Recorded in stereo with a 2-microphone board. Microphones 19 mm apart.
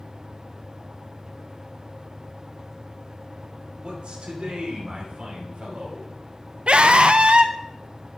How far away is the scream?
About 0.8 m.